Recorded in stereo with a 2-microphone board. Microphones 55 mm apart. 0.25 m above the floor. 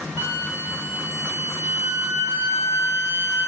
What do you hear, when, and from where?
0.2 s a flute: 55° right (ahead or behind), 1.0 m